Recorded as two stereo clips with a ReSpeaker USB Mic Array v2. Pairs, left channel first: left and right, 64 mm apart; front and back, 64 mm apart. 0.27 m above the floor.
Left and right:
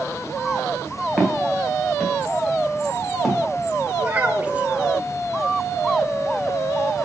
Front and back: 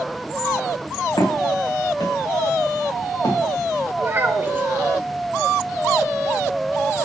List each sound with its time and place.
1.2 s footsteps: 5° right, 2 m
4.0 s a child speaking: 145° right, 0.6 m